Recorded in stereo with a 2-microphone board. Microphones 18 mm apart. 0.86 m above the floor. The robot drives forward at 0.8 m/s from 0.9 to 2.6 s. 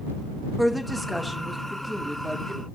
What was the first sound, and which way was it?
A woman speaking, 5° left (ahead or behind).